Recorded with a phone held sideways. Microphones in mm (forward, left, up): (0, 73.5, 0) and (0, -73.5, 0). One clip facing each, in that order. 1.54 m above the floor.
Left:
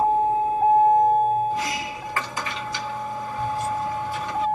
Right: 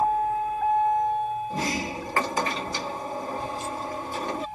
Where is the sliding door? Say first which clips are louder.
Left 2 dB; 40° right (ahead or behind).